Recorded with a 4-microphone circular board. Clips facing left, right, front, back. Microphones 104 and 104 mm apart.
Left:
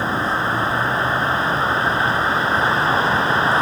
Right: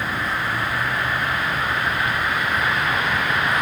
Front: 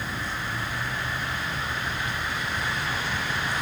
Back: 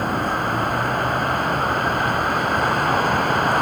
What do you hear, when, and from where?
0.0 s a vehicle: 150° left